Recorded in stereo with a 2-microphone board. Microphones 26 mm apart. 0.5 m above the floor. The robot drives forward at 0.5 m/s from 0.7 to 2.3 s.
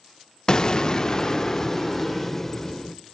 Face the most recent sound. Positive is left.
turn(degrees=15)  # may be behind; listen again after turning